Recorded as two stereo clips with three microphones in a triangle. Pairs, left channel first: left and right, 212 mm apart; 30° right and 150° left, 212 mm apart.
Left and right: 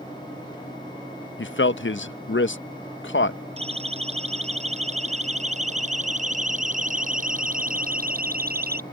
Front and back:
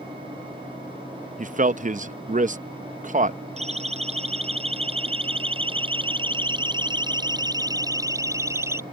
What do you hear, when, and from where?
1.4 s a man speaking: 105° left
3.6 s a siren: 150° right; by 8.8 s 130° right